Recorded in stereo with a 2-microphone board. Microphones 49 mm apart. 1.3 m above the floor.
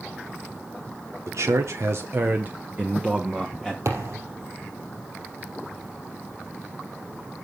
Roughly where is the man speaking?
Right.